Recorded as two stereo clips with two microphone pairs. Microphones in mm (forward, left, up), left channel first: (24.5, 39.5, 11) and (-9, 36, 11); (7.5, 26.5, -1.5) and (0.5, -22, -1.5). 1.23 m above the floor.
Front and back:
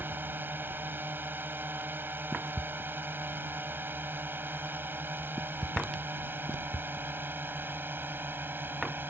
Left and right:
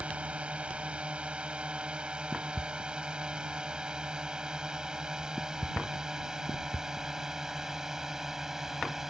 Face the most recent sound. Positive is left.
turn(degrees=180)